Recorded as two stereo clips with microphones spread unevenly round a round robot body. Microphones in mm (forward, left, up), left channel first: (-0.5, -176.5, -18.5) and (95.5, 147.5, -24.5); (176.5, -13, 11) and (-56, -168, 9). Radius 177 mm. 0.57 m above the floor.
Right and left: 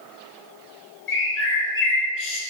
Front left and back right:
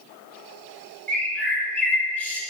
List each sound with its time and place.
1.1 s a bird: 50° right, 0.6 m